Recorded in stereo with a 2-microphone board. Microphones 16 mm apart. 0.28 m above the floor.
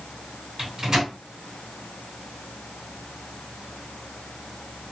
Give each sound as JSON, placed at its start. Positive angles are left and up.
{"t": 0.6, "sound": "a microwave", "side_deg": -35, "distance_m": 1.6}